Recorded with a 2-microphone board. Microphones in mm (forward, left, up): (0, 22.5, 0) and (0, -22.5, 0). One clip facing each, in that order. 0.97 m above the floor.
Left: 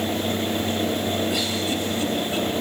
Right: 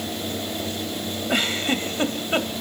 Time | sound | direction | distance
1.3 | a giggle | 45° right (ahead or behind) | 2.0 m